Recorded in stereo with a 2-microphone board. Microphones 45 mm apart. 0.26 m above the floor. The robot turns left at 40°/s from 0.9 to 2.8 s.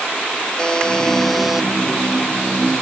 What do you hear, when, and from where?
0.6 s a buzzer: 20° left; by 1.7 s 10° right